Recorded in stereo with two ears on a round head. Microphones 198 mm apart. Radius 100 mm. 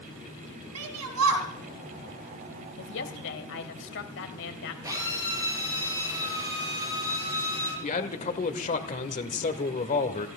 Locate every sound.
0.8 s a shout: 75° right (ahead or behind), 3 m
2.8 s a woman speaking: 55° left (ahead or behind), 1.6 m
4.8 s a drill: 15° right (ahead or behind), 9.5 m
7.8 s a man speaking: 35° left (ahead or behind), 1.1 m